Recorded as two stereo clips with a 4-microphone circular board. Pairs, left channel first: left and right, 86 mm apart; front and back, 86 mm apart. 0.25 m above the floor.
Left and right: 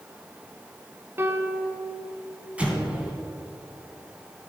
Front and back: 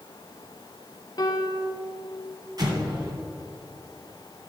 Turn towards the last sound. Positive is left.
turn(degrees=-160)